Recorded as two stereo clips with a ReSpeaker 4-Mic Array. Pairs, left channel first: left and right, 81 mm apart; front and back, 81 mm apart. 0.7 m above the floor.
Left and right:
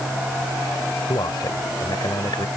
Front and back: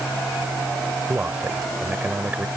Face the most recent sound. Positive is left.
turn(degrees=110)